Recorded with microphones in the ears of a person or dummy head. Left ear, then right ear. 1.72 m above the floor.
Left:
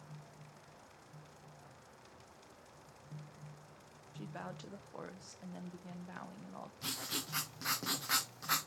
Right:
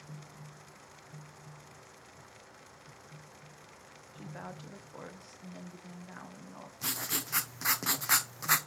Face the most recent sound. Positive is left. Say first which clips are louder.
# right 5 dB
turn(degrees=-25)  # may be behind; listen again after turning